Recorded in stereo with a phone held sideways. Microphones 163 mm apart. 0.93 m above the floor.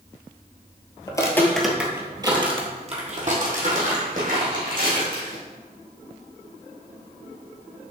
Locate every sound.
1.1 s footsteps: 25° left (ahead or behind), 1.0 m; by 5.4 s 60° right (ahead or behind), 3 m